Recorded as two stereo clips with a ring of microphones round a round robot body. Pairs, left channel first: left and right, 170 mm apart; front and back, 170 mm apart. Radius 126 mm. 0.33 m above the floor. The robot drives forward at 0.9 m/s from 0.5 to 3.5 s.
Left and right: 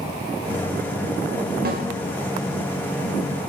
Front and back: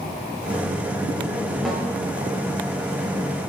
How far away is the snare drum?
About 0.6 m.